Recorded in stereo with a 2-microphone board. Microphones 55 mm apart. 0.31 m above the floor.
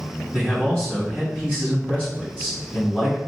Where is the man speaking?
20° left (ahead or behind), 1.9 m.